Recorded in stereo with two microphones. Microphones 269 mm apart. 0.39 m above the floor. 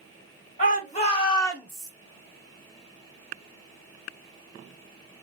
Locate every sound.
0.6 s a shout: 30° left (ahead or behind), 3 m; by 1.9 s 5° right (ahead or behind), 1.8 m